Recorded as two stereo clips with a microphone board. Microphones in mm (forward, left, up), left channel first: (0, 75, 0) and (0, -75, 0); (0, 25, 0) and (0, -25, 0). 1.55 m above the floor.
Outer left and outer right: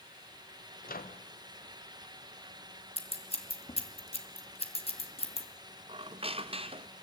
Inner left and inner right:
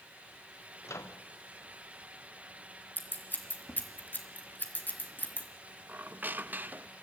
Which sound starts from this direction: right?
A squeak, at 5.9 s.